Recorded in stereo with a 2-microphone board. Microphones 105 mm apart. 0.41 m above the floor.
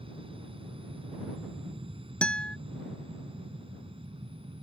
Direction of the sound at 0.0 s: 55° right (ahead or behind).